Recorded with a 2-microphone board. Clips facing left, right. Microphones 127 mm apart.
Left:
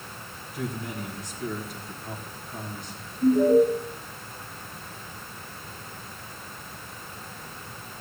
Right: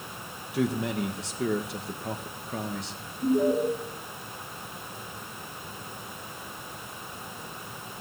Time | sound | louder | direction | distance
0.5 | a man speaking | right 6 dB | 80° right | 1.5 m
3.2 | an alarm | left 6 dB | 25° left (ahead or behind) | 7.5 m